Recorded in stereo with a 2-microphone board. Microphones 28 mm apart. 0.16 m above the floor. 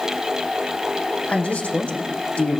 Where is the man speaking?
60° left (ahead or behind), 8 m.